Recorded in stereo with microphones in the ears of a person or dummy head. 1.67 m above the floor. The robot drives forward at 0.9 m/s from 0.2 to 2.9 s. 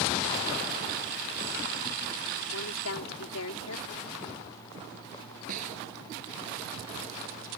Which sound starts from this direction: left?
A woman speaking, at 2.5 s.